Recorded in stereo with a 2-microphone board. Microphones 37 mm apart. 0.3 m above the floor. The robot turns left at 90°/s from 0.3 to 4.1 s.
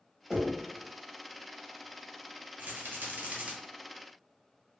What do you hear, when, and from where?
0.3 s knocking: 10° right (ahead or behind), 0.8 m; by 0.6 s 10° left (ahead or behind), 0.8 m
2.6 s a rattle: 55° right, 1.1 m; by 3.5 s 140° right, 1.1 m